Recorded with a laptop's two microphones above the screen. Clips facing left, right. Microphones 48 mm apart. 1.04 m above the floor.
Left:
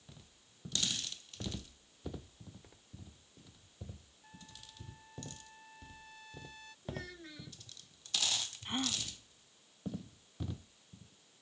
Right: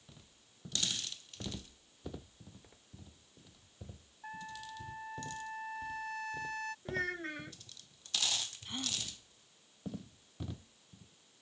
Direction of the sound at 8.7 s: 30° left (ahead or behind).